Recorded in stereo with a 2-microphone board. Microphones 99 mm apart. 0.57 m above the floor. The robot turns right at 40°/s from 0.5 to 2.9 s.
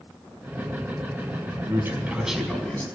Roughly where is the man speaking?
Ahead right.